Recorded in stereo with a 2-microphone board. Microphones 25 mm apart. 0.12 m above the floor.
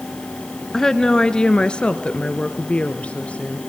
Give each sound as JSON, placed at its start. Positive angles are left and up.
{"t": 0.7, "sound": "a woman speaking", "side_deg": 20, "distance_m": 1.2}